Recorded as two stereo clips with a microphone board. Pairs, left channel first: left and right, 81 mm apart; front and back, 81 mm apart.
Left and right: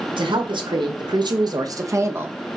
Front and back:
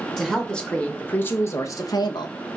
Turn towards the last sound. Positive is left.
turn(degrees=-20)